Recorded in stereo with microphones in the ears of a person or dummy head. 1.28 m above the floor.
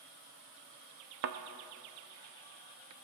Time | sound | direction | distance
1.2 | a thud | 50° right (ahead or behind) | 0.9 m